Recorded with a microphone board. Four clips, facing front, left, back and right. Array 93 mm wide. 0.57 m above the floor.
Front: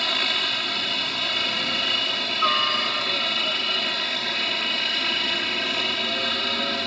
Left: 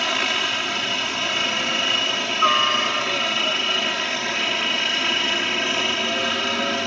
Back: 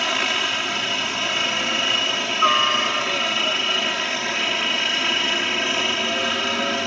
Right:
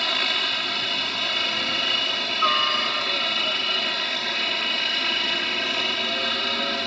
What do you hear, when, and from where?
0.0 s a helicopter: 140° left